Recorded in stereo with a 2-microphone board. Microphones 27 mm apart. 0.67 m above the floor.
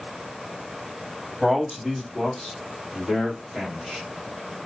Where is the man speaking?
5° left (ahead or behind), 1.2 m; by 4.0 s 15° left (ahead or behind), 2 m.